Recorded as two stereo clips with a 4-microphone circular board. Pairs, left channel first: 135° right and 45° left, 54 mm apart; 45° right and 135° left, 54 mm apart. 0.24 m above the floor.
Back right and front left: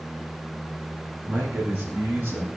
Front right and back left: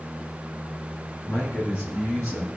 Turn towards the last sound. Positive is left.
turn(degrees=0)